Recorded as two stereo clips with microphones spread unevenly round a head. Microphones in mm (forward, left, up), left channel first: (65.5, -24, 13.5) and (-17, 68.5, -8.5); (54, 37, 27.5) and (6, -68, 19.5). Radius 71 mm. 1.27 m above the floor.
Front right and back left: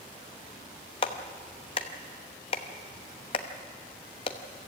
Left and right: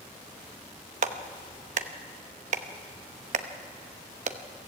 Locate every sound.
1.0 s a clap: 95° right, 1.0 m